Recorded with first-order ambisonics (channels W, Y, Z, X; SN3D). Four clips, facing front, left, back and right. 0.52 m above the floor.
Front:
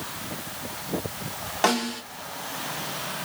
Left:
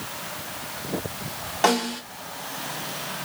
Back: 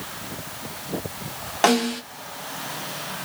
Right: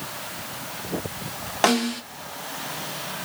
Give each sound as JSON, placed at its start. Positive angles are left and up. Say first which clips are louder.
{"t": 1.6, "sound": "a snare drum", "louder": "right 1 dB, back 4 dB", "azimuth_deg": -130, "distance_m": 1.3}